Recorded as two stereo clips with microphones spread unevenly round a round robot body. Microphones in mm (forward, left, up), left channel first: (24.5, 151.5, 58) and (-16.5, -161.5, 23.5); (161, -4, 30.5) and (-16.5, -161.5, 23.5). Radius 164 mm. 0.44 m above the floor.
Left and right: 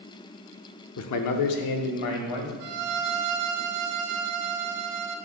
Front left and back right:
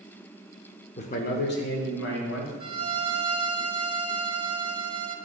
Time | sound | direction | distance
1.0 | a man speaking | 90° left | 0.9 m
2.6 | a violin | 70° right | 1.3 m